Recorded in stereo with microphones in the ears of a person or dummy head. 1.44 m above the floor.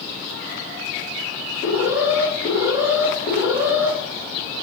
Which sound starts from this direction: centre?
An alarm, at 1.6 s.